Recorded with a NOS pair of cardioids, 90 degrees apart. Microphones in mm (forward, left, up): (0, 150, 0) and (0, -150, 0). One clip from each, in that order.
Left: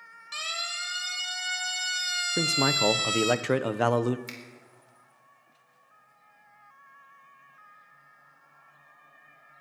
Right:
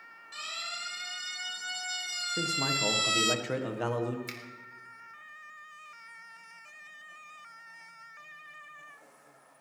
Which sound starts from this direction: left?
A siren, at 0.3 s.